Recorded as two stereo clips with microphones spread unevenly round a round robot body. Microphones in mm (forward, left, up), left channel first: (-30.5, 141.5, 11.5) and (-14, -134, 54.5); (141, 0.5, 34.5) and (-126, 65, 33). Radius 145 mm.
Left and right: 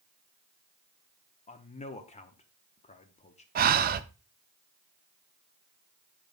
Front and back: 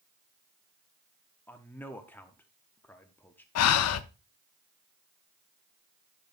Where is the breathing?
25° right, 0.5 m.